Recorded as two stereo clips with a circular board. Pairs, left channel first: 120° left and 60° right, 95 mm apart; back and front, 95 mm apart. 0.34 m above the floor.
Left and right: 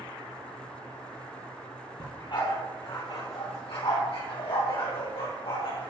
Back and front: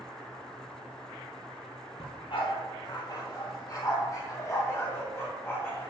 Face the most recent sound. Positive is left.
turn(degrees=115)